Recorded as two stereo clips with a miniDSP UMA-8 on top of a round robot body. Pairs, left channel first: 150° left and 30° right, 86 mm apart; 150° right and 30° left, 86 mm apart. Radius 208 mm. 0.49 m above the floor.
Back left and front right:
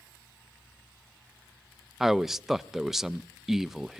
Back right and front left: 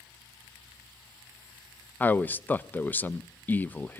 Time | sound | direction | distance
2.0 | a man speaking | 110° right | 0.7 m